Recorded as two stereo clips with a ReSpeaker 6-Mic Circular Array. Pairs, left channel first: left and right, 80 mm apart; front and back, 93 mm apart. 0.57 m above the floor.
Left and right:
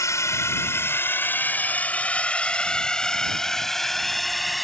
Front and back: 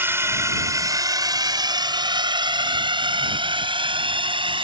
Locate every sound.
0.0 s a drone: 125° left; by 4.6 s straight behind